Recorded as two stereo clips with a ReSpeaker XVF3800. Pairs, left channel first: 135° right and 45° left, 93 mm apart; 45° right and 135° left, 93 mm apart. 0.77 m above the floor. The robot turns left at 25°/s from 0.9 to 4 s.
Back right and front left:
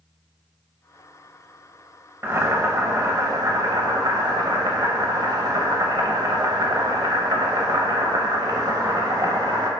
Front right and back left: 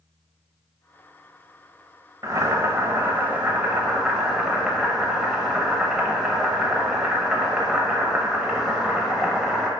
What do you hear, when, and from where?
2.2 s boiling: 100° left, 0.7 m; by 9.7 s 55° left, 0.7 m